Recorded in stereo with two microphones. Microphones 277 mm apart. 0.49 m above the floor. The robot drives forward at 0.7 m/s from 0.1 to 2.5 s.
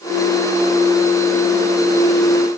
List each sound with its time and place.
Only background noise.